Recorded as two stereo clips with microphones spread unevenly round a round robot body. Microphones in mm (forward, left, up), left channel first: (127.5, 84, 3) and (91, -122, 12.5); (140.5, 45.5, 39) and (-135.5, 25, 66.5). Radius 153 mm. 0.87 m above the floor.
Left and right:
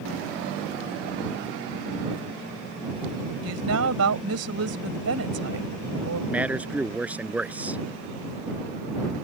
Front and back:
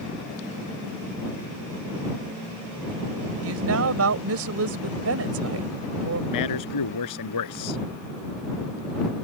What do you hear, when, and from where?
3.4 s a woman speaking: 130° right
6.3 s a man speaking: 15° right